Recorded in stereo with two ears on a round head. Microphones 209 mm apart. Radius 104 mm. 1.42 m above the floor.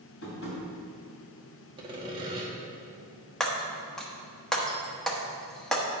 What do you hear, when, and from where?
0.2 s tapping: 55° left (ahead or behind), 3 m
1.8 s sawing: 20° right (ahead or behind), 1.3 m
3.4 s breaking glass: 5° left (ahead or behind), 1.0 m